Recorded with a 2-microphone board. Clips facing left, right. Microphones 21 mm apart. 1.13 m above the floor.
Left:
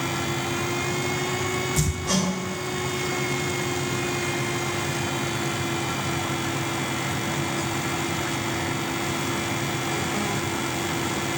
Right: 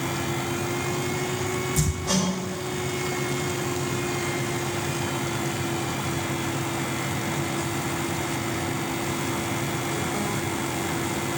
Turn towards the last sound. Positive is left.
turn(degrees=0)  # may be behind; listen again after turning